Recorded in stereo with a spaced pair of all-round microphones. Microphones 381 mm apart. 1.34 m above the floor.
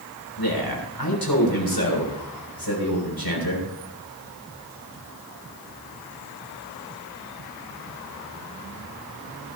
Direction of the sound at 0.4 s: 70° left (ahead or behind).